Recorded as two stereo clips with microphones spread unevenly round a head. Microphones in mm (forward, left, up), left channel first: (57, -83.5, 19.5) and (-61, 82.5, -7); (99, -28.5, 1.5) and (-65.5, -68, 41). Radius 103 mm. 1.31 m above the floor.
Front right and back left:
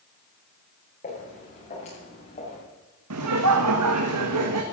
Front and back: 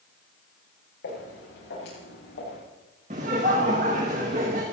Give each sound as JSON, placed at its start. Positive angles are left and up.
{"t": 1.0, "sound": "footsteps", "azimuth_deg": 0, "distance_m": 8.0}
{"t": 3.1, "sound": "laughter", "azimuth_deg": 135, "distance_m": 1.4}